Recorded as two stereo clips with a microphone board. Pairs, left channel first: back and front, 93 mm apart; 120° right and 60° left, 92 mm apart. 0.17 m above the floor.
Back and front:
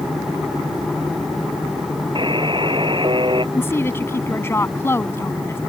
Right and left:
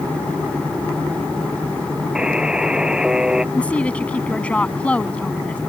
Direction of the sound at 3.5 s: Straight behind.